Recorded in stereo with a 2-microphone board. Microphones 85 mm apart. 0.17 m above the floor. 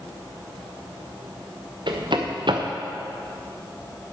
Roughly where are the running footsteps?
Right.